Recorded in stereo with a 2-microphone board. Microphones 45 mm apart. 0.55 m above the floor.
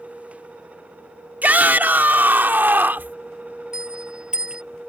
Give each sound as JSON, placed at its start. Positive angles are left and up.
{"t": 1.4, "sound": "a shout", "side_deg": -40}
{"t": 3.7, "sound": "a bell", "side_deg": -20}